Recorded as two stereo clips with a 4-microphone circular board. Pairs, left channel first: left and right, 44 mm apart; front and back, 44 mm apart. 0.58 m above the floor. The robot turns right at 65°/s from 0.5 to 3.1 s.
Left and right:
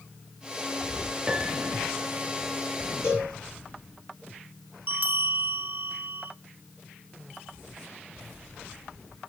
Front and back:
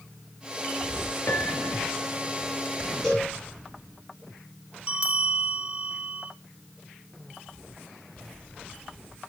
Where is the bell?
125° right, 1.3 m.